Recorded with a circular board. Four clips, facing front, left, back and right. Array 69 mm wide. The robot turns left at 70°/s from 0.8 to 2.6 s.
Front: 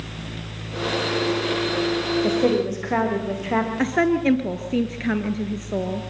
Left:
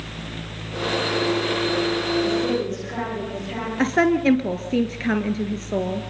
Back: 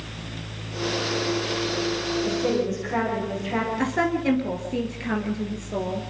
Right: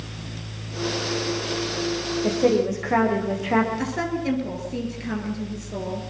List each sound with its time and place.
2.2 s a woman speaking: 25° right, 8 m; by 3.7 s 50° right, 8 m
3.8 s a woman speaking: 65° left, 1.7 m